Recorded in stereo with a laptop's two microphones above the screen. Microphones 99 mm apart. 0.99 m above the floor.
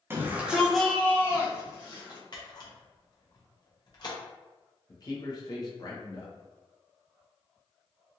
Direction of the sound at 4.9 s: 40° left (ahead or behind).